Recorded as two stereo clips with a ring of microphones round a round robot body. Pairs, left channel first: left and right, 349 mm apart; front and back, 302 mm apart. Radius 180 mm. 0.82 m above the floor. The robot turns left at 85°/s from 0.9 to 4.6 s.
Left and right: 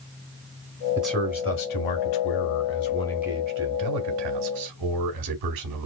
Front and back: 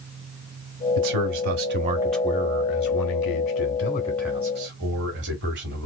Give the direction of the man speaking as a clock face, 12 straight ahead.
6 o'clock.